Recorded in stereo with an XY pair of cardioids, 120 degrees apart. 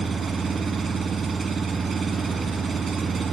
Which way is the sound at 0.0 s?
25° right.